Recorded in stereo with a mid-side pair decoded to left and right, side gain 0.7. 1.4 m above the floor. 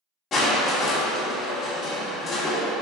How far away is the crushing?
About 1.8 m.